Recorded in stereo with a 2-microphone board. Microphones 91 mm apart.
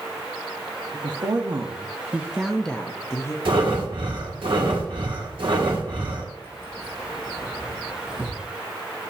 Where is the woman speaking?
55° right (ahead or behind), 1.7 m; by 3.4 s 35° left (ahead or behind), 1.3 m.